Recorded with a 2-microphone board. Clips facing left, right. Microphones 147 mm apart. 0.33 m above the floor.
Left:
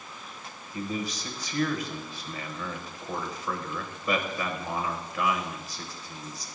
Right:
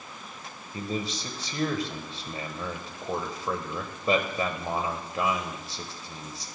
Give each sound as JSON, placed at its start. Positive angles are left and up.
{"t": 0.7, "sound": "a man speaking", "side_deg": -30, "distance_m": 1.2}